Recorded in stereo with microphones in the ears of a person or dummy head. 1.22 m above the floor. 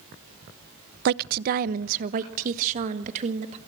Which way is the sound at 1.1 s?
55° right (ahead or behind).